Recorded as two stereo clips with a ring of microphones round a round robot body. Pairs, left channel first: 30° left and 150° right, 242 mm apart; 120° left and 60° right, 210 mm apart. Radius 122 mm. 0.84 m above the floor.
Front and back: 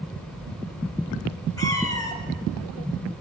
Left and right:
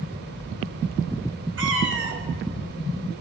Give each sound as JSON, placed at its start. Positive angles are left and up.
{"t": 1.6, "sound": "a cat meowing", "azimuth_deg": -45, "distance_m": 3.0}